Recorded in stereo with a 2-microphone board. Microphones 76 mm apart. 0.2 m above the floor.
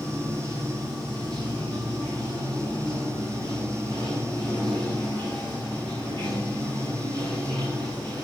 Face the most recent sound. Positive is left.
turn(degrees=-65)  # may be behind; listen again after turning